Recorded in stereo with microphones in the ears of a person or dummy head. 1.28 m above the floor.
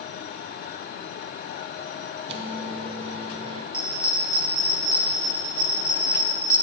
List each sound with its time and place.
2.3 s a microwave: 35° right (ahead or behind), 0.6 m
3.7 s a bell: 15° left (ahead or behind), 0.9 m